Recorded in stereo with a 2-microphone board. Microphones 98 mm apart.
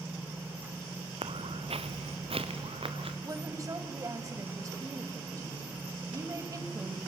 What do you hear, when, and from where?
1.2 s footsteps: 65° right (ahead or behind), 1.0 m
3.2 s a woman speaking: 35° right (ahead or behind), 1.8 m